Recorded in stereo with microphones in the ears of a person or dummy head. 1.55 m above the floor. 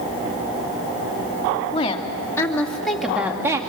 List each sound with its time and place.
1.7 s a woman speaking: 30° left (ahead or behind), 2.5 m; by 3.6 s 20° right (ahead or behind), 2 m